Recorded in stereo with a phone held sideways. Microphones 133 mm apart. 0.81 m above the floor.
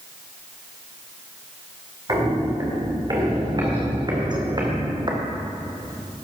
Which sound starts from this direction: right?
Footsteps, at 2.1 s.